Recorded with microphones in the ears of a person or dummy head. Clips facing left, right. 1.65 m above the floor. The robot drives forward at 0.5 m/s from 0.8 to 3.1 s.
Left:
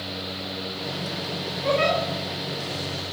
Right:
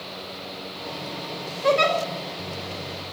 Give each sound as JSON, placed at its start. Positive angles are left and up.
{"t": 1.6, "sound": "a giggle", "side_deg": -60, "distance_m": 3.5}